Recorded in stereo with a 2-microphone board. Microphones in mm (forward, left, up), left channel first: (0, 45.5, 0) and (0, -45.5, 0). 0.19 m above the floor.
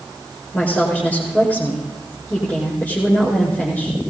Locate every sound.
0.5 s a woman speaking: 15° left (ahead or behind), 5.5 m